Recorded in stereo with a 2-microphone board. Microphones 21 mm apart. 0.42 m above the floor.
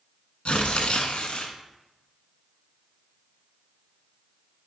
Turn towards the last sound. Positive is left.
turn(degrees=70)  # may be behind; listen again after turning